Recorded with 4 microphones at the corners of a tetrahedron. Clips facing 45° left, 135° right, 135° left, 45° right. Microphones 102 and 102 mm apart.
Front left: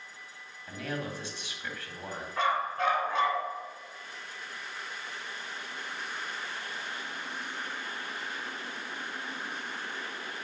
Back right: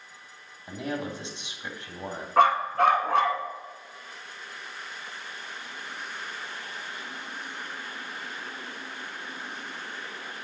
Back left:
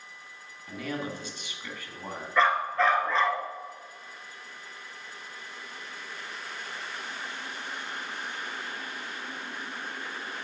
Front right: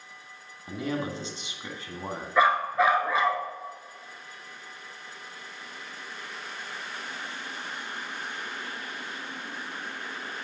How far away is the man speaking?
About 1.6 m.